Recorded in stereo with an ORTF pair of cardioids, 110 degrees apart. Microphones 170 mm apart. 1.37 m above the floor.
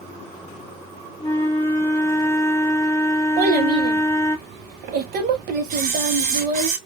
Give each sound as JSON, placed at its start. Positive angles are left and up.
{"t": 1.2, "sound": "a flute", "azimuth_deg": 15, "distance_m": 0.6}
{"t": 3.4, "sound": "a child speaking", "azimuth_deg": -70, "distance_m": 0.8}
{"t": 5.7, "sound": "a camera shutter", "azimuth_deg": -60, "distance_m": 0.8}